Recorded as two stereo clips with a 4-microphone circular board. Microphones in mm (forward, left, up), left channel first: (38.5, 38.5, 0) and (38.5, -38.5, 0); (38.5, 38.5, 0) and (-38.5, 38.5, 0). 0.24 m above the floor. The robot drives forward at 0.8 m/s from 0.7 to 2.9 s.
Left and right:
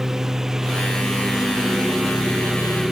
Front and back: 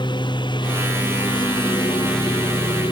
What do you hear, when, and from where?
0.0 s a lawn mower: 5° right